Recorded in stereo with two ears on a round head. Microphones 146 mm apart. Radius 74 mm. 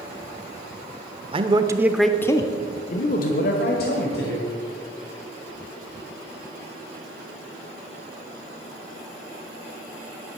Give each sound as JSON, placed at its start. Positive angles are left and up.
{"t": 1.3, "sound": "a man speaking", "side_deg": -35, "distance_m": 0.9}